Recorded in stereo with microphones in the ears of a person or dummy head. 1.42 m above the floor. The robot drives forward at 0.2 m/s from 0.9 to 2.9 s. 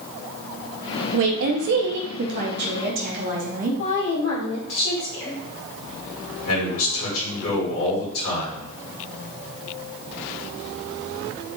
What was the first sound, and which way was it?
A woman speaking, 75° right (ahead or behind).